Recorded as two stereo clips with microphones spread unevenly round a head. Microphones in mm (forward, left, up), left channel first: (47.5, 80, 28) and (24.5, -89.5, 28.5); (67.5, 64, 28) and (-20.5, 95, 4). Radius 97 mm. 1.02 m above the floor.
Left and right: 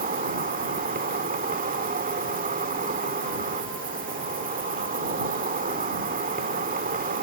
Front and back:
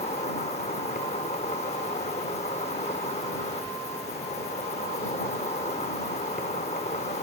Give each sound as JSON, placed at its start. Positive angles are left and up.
{"t": 0.0, "sound": "an insect", "azimuth_deg": -55}